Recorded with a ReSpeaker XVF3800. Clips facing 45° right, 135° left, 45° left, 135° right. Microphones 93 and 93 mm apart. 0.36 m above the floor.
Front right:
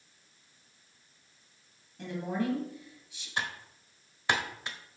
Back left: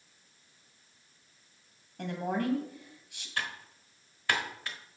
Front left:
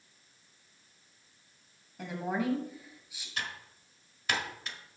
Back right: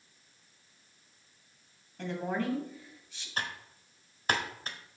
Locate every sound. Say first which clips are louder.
2.0 s a woman speaking: back left 1 dB, even; 125° left, 2.0 m
3.4 s typing on a keyboard: front right 1 dB, back right 2 dB; 105° right, 1.2 m